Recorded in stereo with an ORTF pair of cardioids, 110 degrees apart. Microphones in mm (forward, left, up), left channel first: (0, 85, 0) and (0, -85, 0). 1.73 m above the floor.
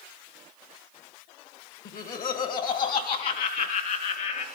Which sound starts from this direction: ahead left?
Laughter, at 1.9 s.